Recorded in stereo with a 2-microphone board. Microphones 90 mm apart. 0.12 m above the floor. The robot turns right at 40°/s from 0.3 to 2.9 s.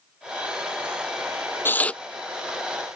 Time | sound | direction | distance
1.6 | tearing paper | 25° left (ahead or behind) | ?